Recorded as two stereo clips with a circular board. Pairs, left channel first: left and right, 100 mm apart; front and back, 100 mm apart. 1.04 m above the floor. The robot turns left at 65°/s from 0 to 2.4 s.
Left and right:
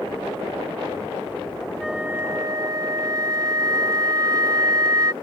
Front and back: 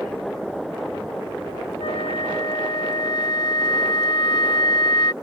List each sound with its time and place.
1.8 s a flute: straight ahead; by 5.1 s 40° right